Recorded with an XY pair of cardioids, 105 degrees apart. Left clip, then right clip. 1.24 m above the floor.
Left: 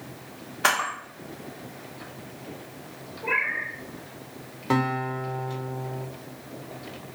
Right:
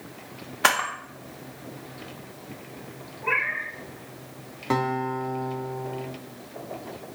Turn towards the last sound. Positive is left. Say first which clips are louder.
# even
turn(degrees=0)